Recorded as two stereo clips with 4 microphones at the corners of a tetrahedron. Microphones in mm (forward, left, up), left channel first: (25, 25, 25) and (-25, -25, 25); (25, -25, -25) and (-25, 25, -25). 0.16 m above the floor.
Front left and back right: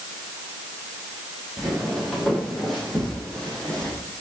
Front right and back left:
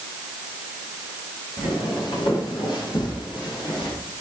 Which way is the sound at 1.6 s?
45° right.